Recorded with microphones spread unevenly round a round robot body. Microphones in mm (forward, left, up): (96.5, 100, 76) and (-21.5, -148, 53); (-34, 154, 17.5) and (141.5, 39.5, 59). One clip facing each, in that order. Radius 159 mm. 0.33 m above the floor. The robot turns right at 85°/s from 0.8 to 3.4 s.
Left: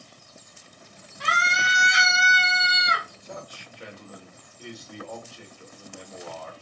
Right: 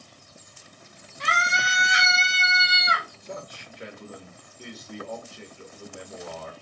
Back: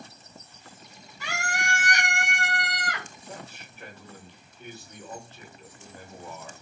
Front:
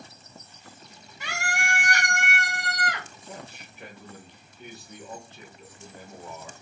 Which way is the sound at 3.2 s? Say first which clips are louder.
Right 2 dB, even; 130° right.